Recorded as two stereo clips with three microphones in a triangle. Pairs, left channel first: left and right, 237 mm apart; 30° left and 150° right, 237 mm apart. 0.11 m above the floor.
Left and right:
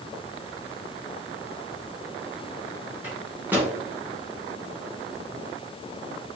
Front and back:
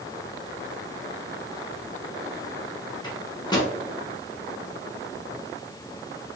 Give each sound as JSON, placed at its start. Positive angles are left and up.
{"t": 3.0, "sound": "a microwave", "azimuth_deg": -20, "distance_m": 0.9}